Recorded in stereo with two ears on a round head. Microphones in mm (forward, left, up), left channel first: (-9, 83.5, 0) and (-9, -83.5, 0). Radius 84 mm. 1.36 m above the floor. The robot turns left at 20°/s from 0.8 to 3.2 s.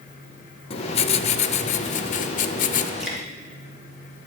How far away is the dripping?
About 2.5 m.